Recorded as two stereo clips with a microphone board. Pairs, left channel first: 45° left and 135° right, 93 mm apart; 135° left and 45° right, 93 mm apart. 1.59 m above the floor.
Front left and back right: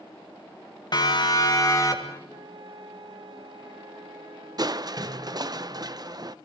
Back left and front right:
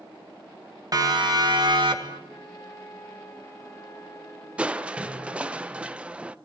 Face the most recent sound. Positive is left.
turn(degrees=-120)